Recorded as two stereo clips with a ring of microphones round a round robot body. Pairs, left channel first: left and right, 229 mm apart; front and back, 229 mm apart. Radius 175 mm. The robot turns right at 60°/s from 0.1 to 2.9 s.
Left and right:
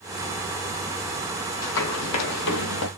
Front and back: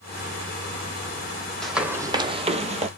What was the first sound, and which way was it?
Running footsteps, 90° left.